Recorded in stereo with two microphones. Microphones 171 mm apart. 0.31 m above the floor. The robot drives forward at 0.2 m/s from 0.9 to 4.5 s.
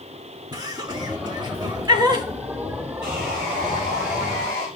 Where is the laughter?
25° right (ahead or behind), 1.2 m.